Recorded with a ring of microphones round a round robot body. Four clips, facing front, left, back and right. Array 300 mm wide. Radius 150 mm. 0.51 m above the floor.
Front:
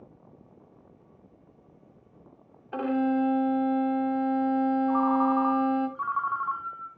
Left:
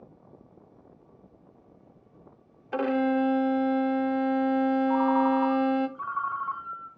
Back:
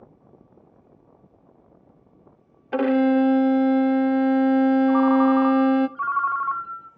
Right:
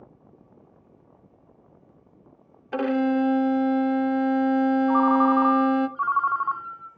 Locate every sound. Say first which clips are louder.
2.7 s a violin: right 2 dB, back 7 dB; 175° right, 0.5 m
4.9 s a ringtone: right 5 dB, back 6 dB; 115° right, 0.9 m